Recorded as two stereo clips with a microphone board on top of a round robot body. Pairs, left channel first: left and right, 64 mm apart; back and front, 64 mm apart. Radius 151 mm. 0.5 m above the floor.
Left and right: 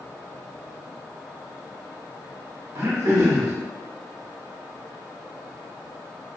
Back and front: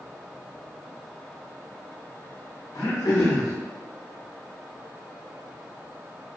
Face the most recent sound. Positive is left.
turn(degrees=-140)